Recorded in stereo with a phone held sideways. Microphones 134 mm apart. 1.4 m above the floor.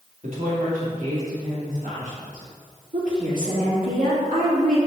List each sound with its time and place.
0.2 s a woman speaking: 75° right (ahead or behind), 3 m; by 2.5 s 70° right (ahead or behind), 5 m
2.9 s a woman speaking: 85° right, 3.5 m